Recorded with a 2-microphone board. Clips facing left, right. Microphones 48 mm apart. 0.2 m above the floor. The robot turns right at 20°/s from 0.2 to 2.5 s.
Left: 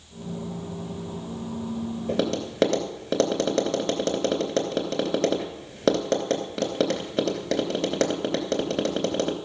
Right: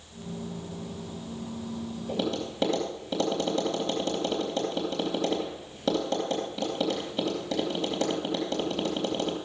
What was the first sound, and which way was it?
Tapping, 70° left (ahead or behind).